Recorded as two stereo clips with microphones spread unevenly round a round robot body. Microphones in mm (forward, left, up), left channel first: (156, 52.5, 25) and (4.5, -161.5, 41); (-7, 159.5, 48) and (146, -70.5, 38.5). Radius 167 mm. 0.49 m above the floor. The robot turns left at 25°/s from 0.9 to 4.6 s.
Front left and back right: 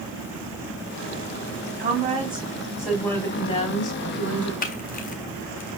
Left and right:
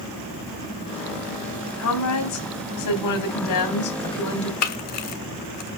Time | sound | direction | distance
1.8 | a woman speaking | 170° left | 3.5 m
4.6 | a camera shutter | 110° left | 1.3 m